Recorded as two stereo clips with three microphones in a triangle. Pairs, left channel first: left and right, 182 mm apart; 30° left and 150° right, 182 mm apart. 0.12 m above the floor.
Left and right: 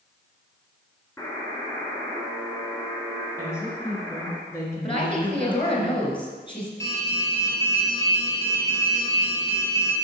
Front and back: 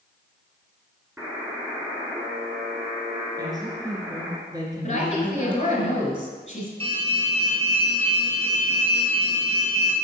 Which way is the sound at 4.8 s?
50° left.